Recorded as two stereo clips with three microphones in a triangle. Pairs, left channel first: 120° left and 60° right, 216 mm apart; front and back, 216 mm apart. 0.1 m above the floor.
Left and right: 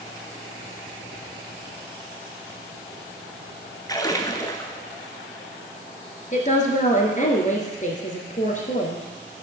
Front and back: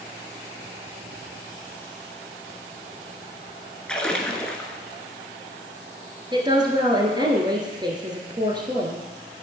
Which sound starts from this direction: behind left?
A woman speaking, at 6.3 s.